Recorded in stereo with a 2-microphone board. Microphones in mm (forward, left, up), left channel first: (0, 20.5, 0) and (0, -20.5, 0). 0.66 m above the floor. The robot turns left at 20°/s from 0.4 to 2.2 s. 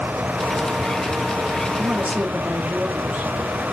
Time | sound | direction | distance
1.8 | a woman speaking | 40° right (ahead or behind) | 1.3 m